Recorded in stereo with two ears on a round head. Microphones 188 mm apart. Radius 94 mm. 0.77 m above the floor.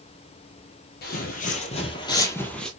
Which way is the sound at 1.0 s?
45° left (ahead or behind).